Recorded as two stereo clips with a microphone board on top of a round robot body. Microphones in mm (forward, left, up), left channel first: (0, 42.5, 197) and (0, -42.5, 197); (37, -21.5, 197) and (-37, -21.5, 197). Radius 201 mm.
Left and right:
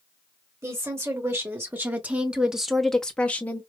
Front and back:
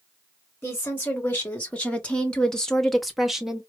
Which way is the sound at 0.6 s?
55° right.